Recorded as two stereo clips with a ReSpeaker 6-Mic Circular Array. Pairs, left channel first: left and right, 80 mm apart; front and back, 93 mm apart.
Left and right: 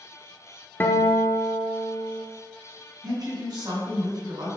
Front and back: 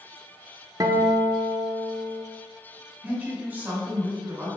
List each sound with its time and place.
0.8 s a guitar: 145° left, 0.7 m
3.0 s a woman speaking: 110° right, 2.5 m